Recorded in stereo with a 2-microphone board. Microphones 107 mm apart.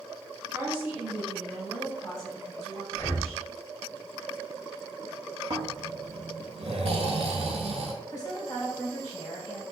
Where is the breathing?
25° left (ahead or behind), 0.6 m.